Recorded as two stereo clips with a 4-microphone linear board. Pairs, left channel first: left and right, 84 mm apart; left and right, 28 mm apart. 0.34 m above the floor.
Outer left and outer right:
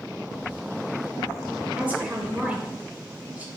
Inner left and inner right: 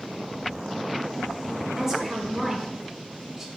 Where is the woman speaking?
20° right (ahead or behind), 0.9 m.